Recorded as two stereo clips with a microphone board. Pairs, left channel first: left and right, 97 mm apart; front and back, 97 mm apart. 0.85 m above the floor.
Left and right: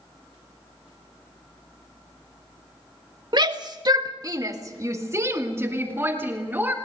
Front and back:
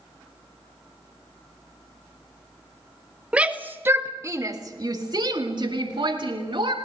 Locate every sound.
3.3 s a shout: 105° right, 1.5 m; by 6.7 s 160° right, 3 m